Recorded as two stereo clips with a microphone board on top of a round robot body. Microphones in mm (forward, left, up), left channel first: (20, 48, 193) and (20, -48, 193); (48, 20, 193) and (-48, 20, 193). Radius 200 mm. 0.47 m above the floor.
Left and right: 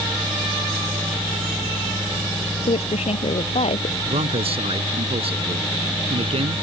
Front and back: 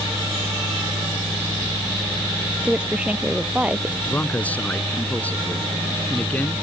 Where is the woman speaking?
100° left; by 4.0 s 105° left.